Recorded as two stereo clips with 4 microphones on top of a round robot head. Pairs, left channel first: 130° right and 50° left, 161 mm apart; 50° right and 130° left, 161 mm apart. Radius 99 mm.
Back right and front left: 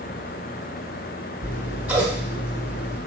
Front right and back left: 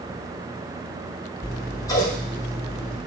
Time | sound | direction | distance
1.4 | scissors | 20° right | 1.0 m